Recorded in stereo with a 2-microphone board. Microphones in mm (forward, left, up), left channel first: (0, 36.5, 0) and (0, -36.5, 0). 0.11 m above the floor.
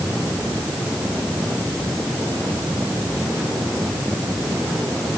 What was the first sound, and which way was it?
Only background noise.